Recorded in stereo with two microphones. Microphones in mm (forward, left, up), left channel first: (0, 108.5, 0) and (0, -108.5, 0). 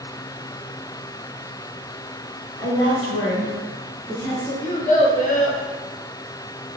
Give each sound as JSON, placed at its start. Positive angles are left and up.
{"t": 2.6, "sound": "a woman speaking", "side_deg": 20, "distance_m": 1.0}
{"t": 4.6, "sound": "a child speaking", "side_deg": 35, "distance_m": 0.5}